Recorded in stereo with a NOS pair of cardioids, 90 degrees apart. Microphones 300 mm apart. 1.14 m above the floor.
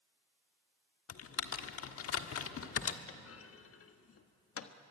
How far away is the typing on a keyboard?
About 1.4 m.